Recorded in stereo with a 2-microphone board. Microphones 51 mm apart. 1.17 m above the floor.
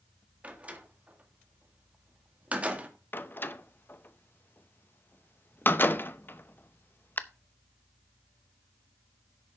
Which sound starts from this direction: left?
A door slam, at 3.1 s.